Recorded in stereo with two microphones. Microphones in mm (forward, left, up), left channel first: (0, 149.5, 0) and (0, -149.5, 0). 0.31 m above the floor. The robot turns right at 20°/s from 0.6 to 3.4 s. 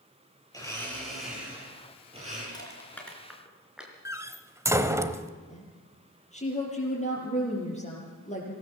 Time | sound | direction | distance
0.5 | a blender | 170° left | 9.5 m
2.5 | crushing | 15° left (ahead or behind) | 4 m
4.0 | a door slam | 10° right (ahead or behind) | 1.0 m
5.5 | a woman speaking | 25° left (ahead or behind) | 7 m